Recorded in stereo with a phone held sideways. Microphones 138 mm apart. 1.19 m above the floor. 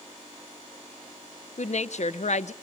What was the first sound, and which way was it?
A woman speaking, 55° left (ahead or behind).